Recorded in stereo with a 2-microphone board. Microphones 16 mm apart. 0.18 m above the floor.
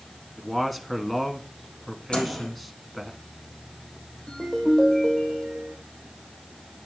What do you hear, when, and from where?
0.4 s a man speaking: 5° left (ahead or behind), 1.3 m
2.1 s a microwave: 75° left (ahead or behind), 4 m
4.3 s a ringtone: 55° left (ahead or behind), 3.5 m